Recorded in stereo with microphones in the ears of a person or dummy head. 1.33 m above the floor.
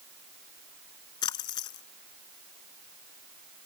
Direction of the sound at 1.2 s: 30° left (ahead or behind).